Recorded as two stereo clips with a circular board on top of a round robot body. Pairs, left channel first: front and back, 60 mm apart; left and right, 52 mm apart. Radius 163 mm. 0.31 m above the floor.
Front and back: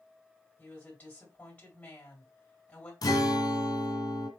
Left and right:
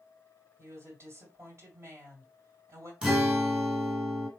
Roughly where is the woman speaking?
Ahead right.